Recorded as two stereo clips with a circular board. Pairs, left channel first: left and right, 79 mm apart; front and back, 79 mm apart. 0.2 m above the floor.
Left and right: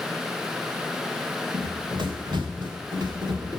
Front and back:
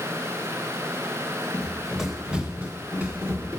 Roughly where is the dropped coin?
No dropped coin in this recording.